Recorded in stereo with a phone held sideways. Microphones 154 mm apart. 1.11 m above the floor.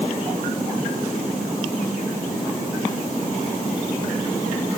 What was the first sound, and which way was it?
Only background noise.